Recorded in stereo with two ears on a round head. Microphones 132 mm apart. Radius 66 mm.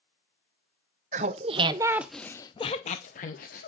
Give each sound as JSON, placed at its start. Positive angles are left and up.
{"t": 1.1, "sound": "laughter", "side_deg": -50, "distance_m": 0.8}